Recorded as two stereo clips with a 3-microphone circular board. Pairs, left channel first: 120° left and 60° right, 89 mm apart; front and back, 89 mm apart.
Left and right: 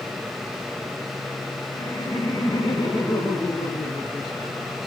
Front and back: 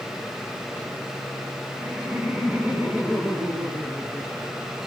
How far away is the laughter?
About 2.5 m.